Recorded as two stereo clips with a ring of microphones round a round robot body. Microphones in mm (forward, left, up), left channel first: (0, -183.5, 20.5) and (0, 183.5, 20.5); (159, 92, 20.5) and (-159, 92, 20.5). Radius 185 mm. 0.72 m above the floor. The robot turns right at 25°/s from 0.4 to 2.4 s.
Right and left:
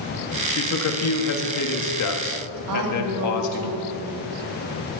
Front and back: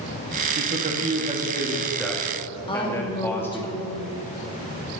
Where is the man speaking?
130° right, 1.4 m; by 3.7 s 80° right, 1.4 m.